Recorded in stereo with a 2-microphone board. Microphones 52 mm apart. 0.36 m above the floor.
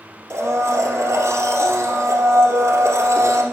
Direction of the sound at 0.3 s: 75° right (ahead or behind).